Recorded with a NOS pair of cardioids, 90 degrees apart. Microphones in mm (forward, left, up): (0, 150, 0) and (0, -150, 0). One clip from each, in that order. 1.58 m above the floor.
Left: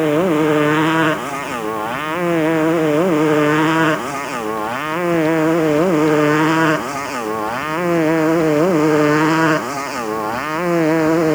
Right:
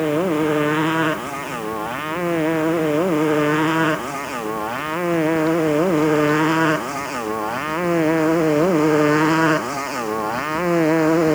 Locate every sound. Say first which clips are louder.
0.0 s a motorcycle: left 4 dB; 25° left; by 11.3 s 5° left